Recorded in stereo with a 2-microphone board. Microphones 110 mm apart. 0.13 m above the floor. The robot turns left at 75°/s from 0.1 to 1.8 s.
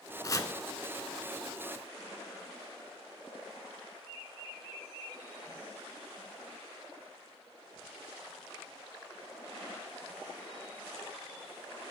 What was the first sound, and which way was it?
Chopping, 35° left (ahead or behind).